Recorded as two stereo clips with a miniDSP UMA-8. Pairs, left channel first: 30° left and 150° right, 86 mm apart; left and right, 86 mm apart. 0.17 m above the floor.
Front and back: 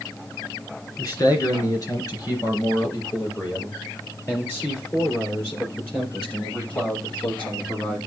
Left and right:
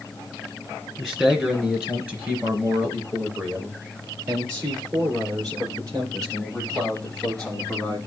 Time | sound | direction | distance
1.0 | a man speaking | 10° right | 3 m